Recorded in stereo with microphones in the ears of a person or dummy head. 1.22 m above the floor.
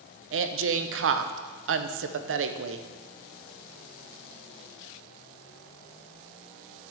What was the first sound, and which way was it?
A woman speaking, 60° right (ahead or behind).